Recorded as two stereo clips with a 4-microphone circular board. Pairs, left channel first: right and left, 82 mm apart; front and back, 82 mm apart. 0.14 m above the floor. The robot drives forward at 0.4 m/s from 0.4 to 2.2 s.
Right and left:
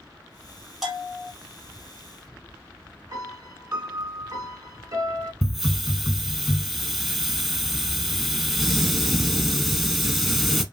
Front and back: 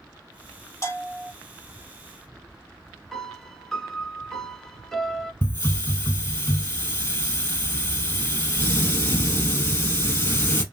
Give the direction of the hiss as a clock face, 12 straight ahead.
12 o'clock.